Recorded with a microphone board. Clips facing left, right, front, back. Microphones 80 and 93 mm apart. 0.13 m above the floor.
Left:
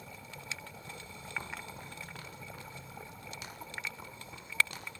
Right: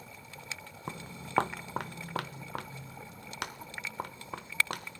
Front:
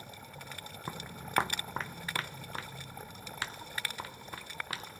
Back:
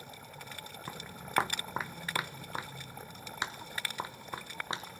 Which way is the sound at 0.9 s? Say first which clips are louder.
Right 4 dB, front 2 dB; 75° right.